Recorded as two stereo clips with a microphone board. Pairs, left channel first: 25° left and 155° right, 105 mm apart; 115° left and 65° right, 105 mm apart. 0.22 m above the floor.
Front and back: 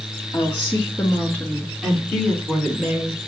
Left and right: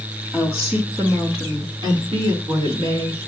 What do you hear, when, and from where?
0.3 s a woman speaking: 5° right, 2.0 m; by 3.2 s 90° right, 2.5 m